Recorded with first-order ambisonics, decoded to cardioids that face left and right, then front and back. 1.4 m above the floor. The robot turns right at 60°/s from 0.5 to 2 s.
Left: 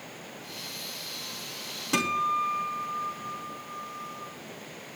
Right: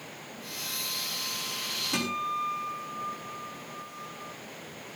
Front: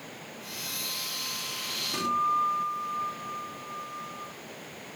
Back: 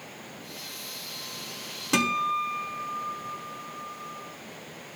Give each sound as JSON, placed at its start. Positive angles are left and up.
{"t": 1.9, "sound": "a guitar", "azimuth_deg": 160, "distance_m": 2.0}